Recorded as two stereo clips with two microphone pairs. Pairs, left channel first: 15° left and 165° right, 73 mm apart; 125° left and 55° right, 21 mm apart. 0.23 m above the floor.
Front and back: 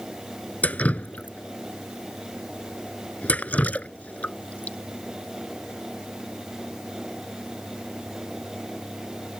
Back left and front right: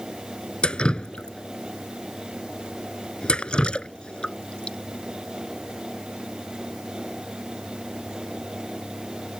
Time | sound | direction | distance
0.6 | dripping | 90° left | ?